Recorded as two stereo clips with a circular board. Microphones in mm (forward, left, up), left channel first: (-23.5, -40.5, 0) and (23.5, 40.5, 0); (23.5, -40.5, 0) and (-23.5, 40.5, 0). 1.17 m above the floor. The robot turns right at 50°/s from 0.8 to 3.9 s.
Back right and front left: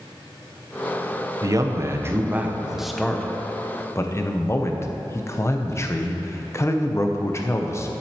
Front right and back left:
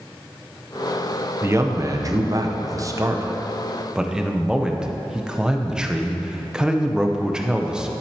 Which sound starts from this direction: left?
A man speaking, at 1.4 s.